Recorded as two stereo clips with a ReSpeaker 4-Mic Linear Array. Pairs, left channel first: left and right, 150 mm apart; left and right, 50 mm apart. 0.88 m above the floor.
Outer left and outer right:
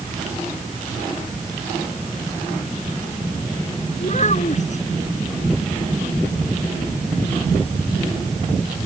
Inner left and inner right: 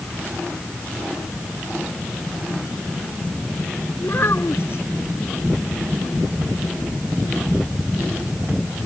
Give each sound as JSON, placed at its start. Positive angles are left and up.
{"t": 4.0, "sound": "a child speaking", "side_deg": 50}